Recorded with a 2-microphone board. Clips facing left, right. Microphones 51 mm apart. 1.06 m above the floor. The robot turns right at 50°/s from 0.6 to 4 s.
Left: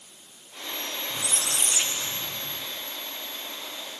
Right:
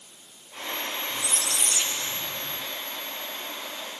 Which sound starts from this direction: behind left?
A squeak, at 1.1 s.